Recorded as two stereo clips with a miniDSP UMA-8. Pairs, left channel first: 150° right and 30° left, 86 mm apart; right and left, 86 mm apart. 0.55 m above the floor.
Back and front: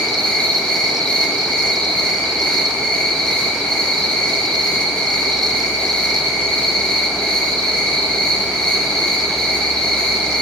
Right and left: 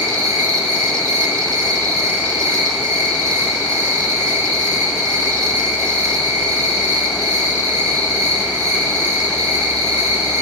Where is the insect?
130° left, 7 m.